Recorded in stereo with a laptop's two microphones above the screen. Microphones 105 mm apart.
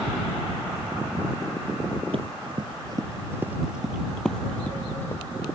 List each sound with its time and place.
2.1 s running footsteps: 55° right (ahead or behind); by 5.2 s 20° left (ahead or behind)